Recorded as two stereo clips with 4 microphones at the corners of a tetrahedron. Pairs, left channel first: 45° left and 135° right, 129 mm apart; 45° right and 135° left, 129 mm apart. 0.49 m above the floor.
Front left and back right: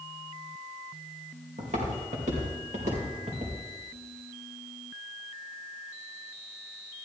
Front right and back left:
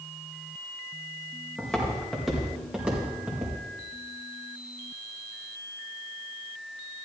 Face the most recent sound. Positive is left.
turn(degrees=-155)